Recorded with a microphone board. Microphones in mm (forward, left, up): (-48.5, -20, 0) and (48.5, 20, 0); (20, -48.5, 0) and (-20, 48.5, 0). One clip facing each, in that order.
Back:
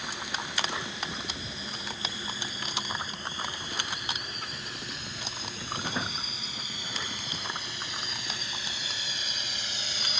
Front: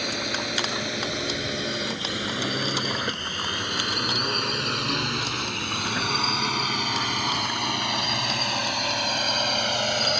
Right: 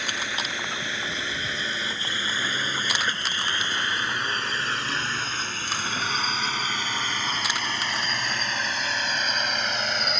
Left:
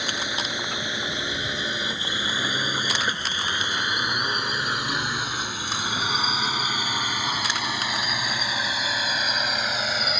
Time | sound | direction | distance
0.0 | a drone | 40° left | ?